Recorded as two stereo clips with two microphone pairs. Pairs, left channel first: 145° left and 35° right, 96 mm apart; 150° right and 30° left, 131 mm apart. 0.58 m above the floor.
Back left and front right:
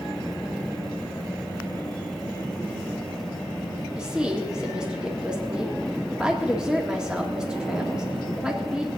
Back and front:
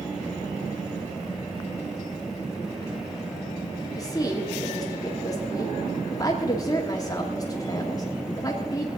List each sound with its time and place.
4.0 s a woman speaking: 110° right, 1.4 m